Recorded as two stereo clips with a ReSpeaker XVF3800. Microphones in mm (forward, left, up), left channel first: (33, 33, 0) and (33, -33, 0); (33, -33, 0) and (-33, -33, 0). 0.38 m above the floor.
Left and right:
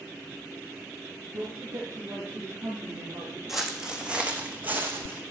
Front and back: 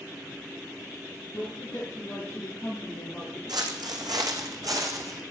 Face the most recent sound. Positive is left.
turn(degrees=-145)